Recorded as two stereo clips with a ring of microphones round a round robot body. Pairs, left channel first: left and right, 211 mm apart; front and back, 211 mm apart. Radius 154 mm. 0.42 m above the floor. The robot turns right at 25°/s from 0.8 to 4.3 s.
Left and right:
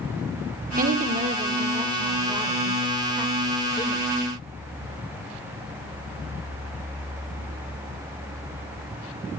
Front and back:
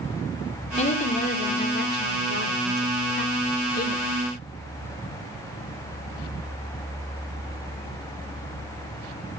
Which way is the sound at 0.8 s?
50° right.